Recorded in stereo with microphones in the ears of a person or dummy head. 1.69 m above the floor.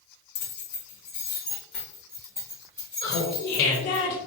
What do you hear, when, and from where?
0.3 s keys jangling: 40° left (ahead or behind), 0.9 m; by 4.0 s 20° right (ahead or behind), 1.9 m
3.0 s laughter: 45° left (ahead or behind), 1.1 m